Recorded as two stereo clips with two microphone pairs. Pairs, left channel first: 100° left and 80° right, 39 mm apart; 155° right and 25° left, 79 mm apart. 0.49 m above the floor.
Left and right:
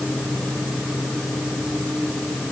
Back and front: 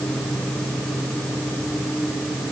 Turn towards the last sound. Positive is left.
No sound to turn to.